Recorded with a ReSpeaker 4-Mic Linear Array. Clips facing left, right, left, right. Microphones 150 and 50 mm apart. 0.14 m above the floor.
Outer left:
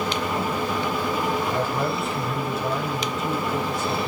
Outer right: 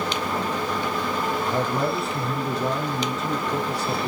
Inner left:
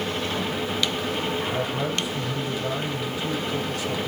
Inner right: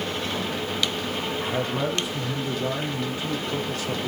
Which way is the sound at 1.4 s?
35° right (ahead or behind).